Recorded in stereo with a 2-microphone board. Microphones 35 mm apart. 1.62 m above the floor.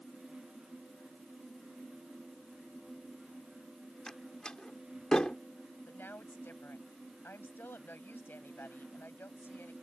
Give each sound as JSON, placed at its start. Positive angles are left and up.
{"t": 4.1, "sound": "a door slam", "side_deg": 20}
{"t": 5.9, "sound": "a woman speaking", "side_deg": 85}